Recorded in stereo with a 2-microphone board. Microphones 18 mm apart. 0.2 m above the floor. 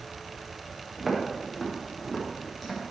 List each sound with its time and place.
1.0 s footsteps: centre (ahead or behind), 4.5 m; by 2.9 s 5° left (ahead or behind), 4 m